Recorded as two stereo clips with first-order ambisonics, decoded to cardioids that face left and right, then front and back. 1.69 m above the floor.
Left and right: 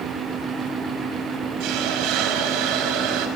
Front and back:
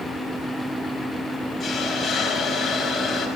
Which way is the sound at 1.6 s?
80° right.